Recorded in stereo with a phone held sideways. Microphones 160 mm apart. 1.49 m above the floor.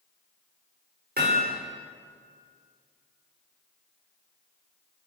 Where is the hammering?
70° right (ahead or behind), 5 m.